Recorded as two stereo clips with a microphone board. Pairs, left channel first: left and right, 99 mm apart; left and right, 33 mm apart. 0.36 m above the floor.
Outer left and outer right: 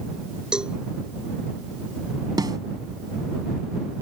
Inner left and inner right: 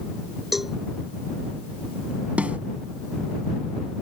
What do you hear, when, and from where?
0.5 s a cowbell: 10° right (ahead or behind)
2.4 s a snare drum: 45° right (ahead or behind)